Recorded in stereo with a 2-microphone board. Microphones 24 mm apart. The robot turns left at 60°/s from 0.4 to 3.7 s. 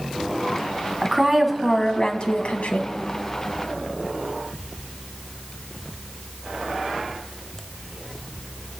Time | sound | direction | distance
1.0 | a woman speaking | 160° right | 1.4 m